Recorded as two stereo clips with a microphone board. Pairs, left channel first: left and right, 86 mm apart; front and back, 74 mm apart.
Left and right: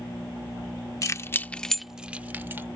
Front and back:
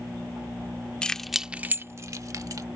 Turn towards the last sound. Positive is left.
turn(degrees=-150)